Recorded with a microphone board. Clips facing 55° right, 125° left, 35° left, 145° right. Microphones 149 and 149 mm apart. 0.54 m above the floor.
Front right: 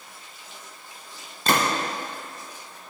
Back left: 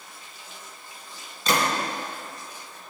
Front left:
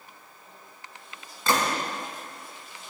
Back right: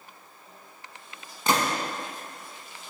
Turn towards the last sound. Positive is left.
turn(degrees=-80)